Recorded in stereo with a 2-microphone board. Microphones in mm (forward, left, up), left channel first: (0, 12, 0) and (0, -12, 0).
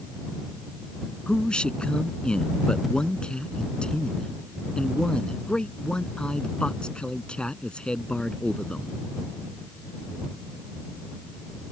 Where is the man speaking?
35° left (ahead or behind).